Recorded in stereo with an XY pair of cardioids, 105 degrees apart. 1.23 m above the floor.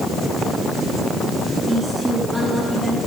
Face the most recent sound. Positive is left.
turn(degrees=-10)